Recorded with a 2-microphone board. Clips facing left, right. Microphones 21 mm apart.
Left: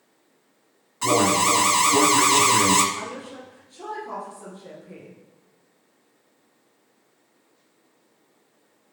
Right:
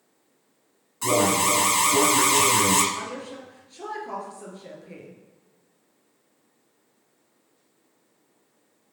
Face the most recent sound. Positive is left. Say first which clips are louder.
# even
turn(degrees=-25)  # may be behind; listen again after turning